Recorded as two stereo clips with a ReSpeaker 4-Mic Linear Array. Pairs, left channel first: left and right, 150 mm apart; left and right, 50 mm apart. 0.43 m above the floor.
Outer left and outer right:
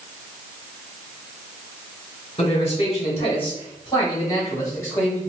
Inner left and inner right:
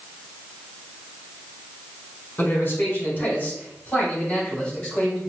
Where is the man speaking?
45° left (ahead or behind), 1.8 m; by 5.3 s 15° left (ahead or behind), 2 m.